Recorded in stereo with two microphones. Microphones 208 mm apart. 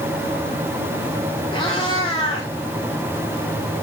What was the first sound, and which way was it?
A cat meowing, 25° left (ahead or behind).